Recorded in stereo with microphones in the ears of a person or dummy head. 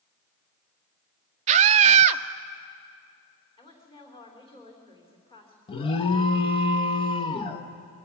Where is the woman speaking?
20° left (ahead or behind), 3.5 m.